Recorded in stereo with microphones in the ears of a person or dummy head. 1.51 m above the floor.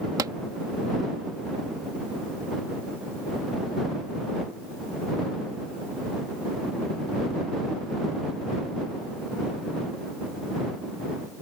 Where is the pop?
25° right (ahead or behind).